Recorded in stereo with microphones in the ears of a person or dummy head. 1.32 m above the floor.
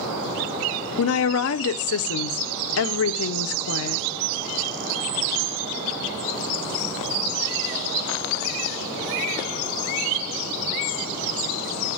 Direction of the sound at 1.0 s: 70° left (ahead or behind).